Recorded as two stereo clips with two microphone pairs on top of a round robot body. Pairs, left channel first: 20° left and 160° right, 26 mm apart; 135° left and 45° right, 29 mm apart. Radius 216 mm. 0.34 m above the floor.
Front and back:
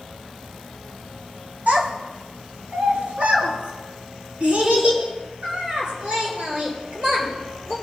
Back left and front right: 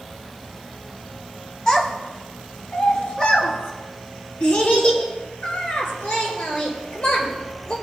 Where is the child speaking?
165° right, 2.5 m; by 7.7 s 155° left, 8 m.